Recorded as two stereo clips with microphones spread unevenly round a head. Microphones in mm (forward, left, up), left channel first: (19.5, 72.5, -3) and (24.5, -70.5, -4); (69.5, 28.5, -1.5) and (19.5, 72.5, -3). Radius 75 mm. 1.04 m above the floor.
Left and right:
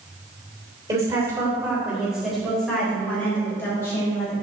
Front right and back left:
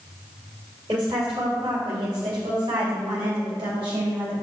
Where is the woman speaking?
160° right, 3.5 m; by 4.3 s 165° left, 4.5 m.